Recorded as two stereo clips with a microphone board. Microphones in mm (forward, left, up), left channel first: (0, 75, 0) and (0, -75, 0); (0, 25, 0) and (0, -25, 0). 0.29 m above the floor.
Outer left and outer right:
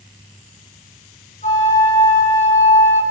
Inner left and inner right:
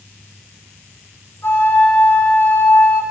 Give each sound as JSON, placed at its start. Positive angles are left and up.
{"t": 1.4, "sound": "a flute", "side_deg": 55, "distance_m": 8.5}